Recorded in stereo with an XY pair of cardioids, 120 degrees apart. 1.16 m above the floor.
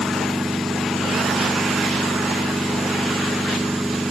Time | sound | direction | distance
0.0 | a machine running | 5° right | ?